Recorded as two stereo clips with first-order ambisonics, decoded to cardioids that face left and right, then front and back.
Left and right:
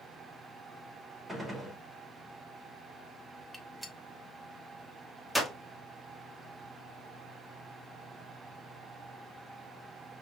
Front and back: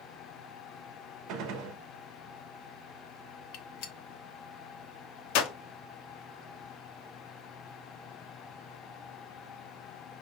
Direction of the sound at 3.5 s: Straight ahead.